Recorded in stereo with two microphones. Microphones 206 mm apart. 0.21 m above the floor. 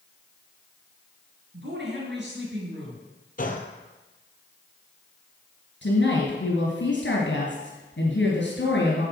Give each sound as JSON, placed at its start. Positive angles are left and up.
{"t": 1.5, "sound": "a woman speaking", "side_deg": -60, "distance_m": 4.0}
{"t": 3.4, "sound": "a gunshot", "side_deg": 45, "distance_m": 1.1}
{"t": 5.8, "sound": "a woman speaking", "side_deg": 65, "distance_m": 3.0}